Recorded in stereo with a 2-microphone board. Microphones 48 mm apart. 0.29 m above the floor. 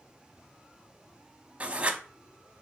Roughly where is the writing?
Right.